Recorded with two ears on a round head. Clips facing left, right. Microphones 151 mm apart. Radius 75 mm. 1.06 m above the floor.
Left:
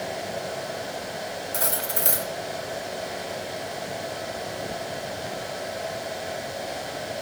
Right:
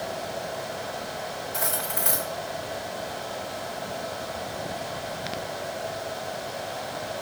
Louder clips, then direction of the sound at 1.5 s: Left 1 dB; 45° left (ahead or behind).